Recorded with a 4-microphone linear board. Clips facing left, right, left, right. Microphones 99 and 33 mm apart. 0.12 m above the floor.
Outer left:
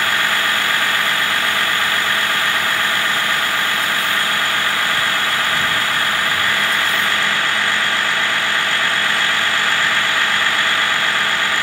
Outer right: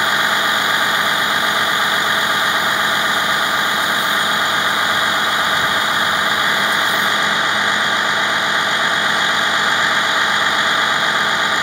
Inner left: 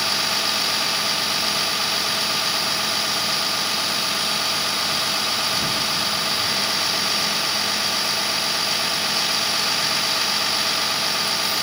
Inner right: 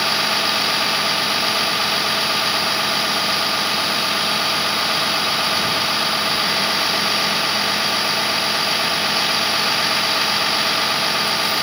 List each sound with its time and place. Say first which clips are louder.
0.0 s a vehicle: outer right 2 dB, inner right 4 dB; 20° right (ahead or behind)